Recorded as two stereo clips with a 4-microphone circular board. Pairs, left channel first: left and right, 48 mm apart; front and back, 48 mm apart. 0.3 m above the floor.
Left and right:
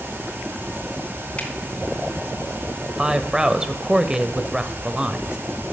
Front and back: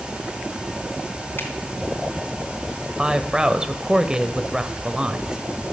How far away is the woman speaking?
About 0.9 m.